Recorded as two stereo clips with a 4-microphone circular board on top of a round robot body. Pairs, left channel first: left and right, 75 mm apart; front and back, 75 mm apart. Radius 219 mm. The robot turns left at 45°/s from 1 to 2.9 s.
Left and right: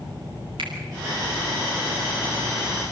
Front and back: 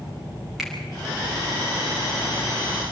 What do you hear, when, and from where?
0.6 s a finger snap: 90° right, 5.5 m